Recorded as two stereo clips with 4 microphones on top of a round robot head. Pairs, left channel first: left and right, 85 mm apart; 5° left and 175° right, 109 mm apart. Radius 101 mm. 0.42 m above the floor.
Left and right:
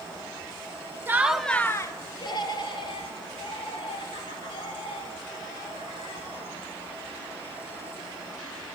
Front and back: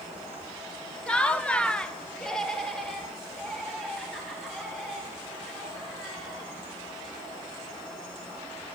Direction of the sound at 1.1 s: 65° right.